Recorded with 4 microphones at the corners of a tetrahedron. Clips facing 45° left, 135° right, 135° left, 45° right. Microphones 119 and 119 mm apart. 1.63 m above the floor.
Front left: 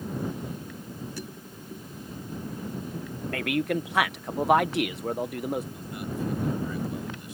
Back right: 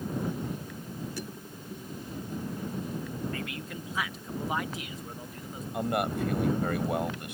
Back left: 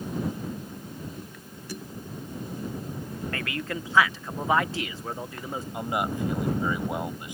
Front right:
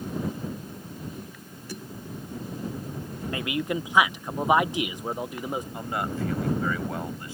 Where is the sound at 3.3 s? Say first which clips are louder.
Front left 11 dB, front right 6 dB; 30° left.